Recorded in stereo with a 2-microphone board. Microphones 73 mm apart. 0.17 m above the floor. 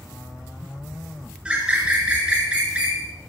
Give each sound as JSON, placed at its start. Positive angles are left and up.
{"t": 1.4, "sound": "a bird", "side_deg": -15, "distance_m": 2.5}